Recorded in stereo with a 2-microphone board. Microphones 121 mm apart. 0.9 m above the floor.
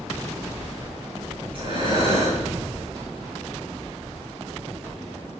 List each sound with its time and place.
1.5 s breathing: 50° right (ahead or behind), 6.5 m